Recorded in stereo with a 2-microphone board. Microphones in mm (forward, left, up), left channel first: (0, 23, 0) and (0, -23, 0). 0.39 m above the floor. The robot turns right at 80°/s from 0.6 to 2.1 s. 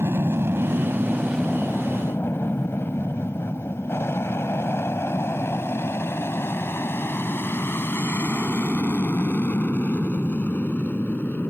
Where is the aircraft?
60° right (ahead or behind); by 11.5 s 40° left (ahead or behind).